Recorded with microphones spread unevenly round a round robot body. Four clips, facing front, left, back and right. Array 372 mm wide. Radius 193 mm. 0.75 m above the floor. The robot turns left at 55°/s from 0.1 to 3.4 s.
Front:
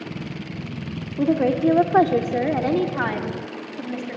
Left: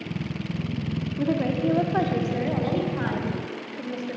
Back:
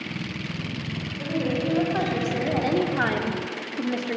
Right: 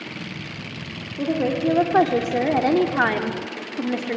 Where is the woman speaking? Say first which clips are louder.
Right 3 dB, front 8 dB; 5° left, 2.5 m; by 4.2 s 120° right, 2.5 m.